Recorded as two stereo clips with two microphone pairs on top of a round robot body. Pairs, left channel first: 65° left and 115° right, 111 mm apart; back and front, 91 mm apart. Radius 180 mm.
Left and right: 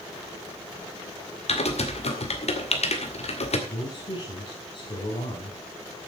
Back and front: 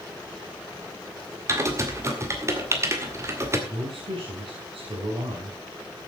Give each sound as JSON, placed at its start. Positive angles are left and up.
{"t": 1.5, "sound": "typing on a keyboard", "azimuth_deg": 60, "distance_m": 2.5}
{"t": 3.7, "sound": "a man speaking", "azimuth_deg": 25, "distance_m": 4.0}